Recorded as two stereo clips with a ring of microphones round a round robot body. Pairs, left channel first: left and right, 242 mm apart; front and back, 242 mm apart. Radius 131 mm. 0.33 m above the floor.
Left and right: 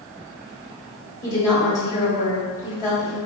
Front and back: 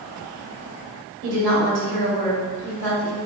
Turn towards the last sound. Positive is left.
turn(degrees=160)